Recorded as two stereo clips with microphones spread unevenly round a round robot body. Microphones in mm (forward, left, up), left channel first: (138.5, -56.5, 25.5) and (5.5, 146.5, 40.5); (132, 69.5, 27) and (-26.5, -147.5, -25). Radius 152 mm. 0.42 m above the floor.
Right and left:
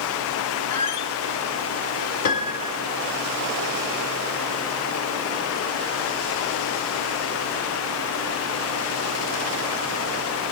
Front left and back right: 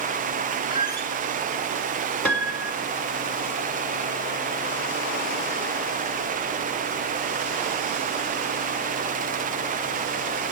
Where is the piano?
30° right, 2 m.